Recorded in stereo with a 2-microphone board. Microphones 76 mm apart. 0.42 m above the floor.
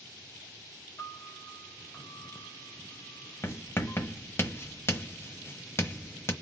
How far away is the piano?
About 2.0 m.